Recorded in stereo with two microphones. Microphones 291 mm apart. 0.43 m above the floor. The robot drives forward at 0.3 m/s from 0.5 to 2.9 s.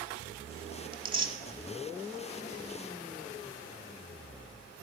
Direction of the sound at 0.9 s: 20° right (ahead or behind).